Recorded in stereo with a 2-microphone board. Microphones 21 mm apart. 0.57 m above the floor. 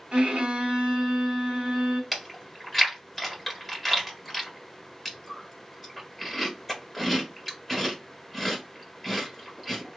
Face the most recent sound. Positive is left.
turn(degrees=10)  # may be behind; listen again after turning